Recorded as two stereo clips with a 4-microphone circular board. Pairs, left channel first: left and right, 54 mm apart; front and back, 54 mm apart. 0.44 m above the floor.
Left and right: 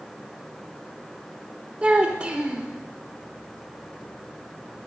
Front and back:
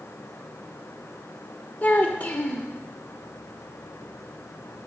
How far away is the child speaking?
About 0.7 m.